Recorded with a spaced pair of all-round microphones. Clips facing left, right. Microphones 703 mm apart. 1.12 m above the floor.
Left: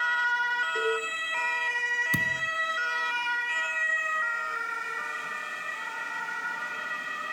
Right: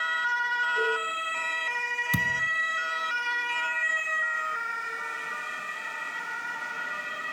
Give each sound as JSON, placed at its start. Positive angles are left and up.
{"t": 0.8, "sound": "a cowbell", "side_deg": 80, "distance_m": 6.0}
{"t": 2.1, "sound": "a thud", "side_deg": -25, "distance_m": 1.1}